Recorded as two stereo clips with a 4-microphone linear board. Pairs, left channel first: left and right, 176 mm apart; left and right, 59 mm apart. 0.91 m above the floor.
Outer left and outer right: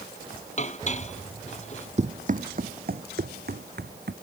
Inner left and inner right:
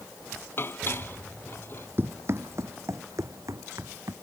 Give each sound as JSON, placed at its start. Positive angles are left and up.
{"t": 0.6, "sound": "dishes clattering", "side_deg": 40}
{"t": 2.0, "sound": "running footsteps", "side_deg": -40}